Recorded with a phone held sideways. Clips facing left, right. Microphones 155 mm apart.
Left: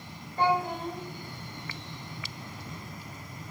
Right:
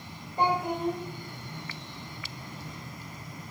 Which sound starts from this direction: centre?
A child speaking, at 0.4 s.